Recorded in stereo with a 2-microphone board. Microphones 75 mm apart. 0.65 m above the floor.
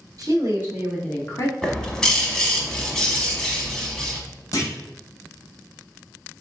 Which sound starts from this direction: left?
A clunk, at 4.5 s.